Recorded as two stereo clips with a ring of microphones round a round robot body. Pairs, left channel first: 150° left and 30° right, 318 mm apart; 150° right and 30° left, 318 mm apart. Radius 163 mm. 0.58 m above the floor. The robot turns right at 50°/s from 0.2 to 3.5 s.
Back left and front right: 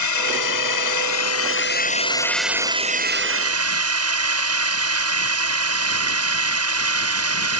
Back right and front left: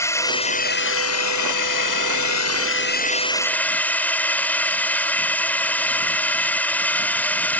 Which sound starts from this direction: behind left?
A drone, at 0.0 s.